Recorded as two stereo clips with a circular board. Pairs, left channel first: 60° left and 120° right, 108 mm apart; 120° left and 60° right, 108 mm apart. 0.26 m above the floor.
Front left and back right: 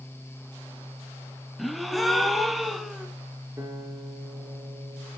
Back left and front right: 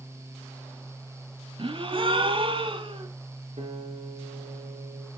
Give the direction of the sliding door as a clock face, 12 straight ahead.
No sliding door in this recording.